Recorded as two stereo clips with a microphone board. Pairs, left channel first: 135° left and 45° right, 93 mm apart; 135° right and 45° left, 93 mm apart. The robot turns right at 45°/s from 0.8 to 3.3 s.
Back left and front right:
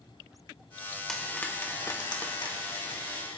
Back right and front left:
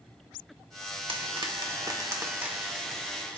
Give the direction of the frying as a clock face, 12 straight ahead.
10 o'clock.